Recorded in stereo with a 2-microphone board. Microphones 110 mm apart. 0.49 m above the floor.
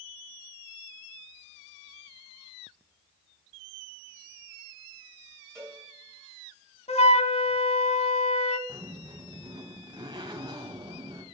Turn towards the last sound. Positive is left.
turn(degrees=-45)  # may be behind; listen again after turning